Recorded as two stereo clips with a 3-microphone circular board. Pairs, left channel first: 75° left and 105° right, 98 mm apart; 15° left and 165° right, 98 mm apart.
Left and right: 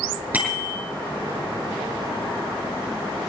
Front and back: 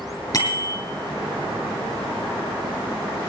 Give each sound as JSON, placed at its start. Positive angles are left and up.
{"t": 0.3, "sound": "a bicycle bell", "azimuth_deg": -30, "distance_m": 7.5}